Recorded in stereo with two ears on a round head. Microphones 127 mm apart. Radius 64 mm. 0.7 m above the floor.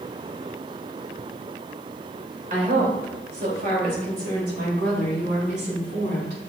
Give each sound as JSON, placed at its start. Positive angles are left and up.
{"t": 2.5, "sound": "a woman speaking", "side_deg": -65, "distance_m": 3.0}